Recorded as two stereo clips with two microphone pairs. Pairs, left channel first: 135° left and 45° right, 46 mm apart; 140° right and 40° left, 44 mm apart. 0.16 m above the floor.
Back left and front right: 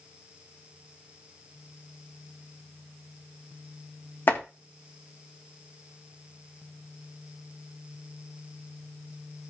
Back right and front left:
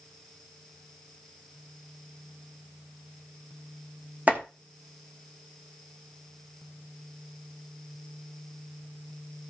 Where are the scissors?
No scissors in this recording.